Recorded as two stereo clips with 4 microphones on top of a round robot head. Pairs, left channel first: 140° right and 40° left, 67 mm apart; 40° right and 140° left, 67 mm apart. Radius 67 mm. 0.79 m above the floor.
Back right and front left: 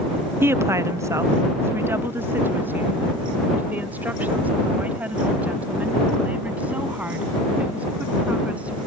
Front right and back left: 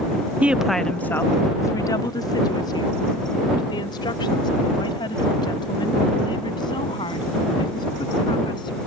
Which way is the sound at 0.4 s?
80° left.